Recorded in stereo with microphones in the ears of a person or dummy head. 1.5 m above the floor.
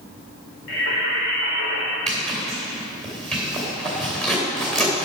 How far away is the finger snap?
I don't hear a finger snap.